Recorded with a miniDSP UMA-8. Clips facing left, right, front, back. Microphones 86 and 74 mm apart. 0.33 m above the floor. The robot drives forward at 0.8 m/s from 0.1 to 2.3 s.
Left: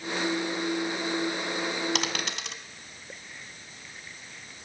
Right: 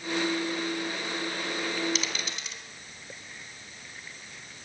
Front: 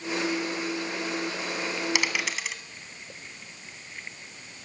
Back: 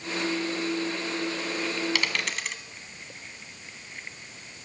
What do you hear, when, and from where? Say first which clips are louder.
1.9 s a dropped coin: left 3 dB, front 1 dB; 75° left, 1.3 m; by 2.6 s 85° left, 1.2 m